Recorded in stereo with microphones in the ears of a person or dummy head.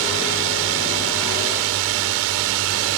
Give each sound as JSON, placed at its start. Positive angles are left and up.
{"t": 0.0, "sound": "a drone", "side_deg": -70}